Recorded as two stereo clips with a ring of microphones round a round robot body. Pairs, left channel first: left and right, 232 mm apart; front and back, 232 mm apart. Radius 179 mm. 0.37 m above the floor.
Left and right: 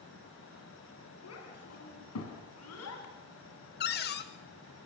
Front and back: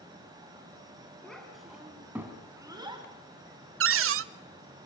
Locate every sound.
1.2 s a child speaking: 85° left, 3.5 m; by 3.0 s 110° left, 3 m
3.8 s a cupboard door: 145° left, 0.6 m